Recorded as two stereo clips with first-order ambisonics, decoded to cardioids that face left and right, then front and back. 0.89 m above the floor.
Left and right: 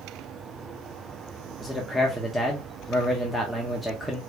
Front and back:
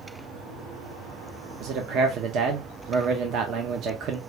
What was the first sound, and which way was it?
A man speaking, 175° left.